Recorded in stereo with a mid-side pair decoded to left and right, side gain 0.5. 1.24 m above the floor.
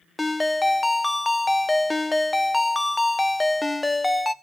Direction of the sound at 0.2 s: 15° left.